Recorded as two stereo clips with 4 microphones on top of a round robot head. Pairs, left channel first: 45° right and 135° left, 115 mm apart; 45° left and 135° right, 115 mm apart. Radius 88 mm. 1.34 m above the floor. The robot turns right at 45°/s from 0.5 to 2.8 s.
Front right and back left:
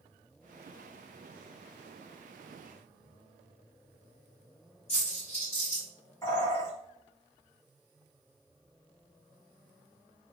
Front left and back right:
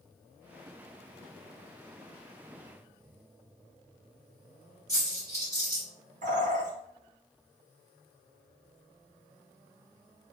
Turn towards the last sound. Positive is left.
turn(degrees=-115)